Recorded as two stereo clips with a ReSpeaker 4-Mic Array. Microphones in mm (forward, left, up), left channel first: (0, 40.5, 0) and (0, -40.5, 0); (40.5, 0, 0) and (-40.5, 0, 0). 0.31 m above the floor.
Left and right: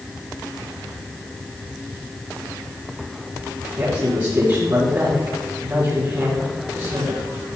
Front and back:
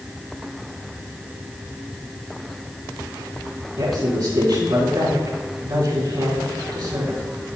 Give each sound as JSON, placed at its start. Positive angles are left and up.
{"t": 3.8, "sound": "a woman speaking", "azimuth_deg": -140, "distance_m": 4.5}